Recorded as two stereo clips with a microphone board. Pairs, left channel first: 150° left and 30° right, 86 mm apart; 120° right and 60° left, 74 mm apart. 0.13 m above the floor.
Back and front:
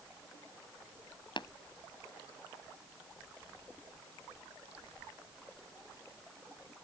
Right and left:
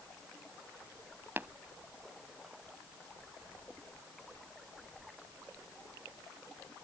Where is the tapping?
120° left.